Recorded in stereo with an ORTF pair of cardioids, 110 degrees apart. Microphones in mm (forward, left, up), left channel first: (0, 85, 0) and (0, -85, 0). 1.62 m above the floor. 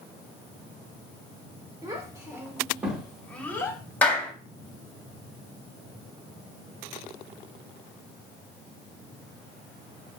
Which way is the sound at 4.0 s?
10° left.